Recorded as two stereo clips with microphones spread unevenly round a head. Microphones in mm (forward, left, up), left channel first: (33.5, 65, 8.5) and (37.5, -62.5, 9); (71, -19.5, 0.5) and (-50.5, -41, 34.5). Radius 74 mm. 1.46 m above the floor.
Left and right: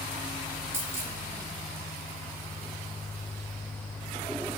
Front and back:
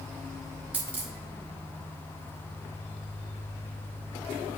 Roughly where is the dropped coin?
Behind right.